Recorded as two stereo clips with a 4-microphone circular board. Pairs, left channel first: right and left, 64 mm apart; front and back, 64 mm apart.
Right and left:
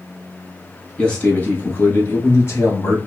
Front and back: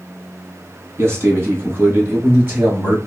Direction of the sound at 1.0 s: 160° right.